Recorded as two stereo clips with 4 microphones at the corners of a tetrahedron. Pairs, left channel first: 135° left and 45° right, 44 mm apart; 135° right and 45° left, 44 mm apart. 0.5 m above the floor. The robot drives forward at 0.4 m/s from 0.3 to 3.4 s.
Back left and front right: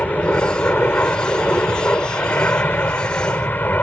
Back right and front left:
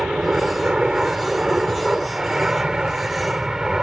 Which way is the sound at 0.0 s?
110° left.